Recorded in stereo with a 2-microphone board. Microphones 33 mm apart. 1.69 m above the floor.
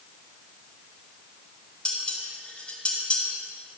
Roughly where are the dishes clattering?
Left.